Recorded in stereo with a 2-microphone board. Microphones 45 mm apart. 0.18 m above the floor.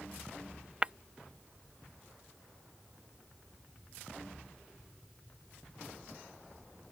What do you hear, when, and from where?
0.8 s breaking glass: 20° right (ahead or behind)